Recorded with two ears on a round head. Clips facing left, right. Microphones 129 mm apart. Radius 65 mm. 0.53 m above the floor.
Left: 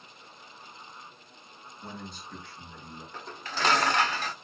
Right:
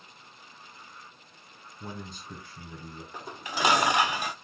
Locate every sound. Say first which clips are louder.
1.8 s a man speaking: right 1 dB; 70° right (ahead or behind), 4 m
3.1 s dishes clattering: right 2 dB; 10° right (ahead or behind), 0.5 m